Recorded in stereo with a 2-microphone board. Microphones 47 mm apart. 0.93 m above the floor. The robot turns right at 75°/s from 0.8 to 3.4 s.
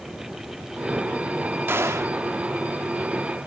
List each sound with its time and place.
1.7 s a gunshot: 125° right, 1.0 m; by 2.2 s 85° right, 1.0 m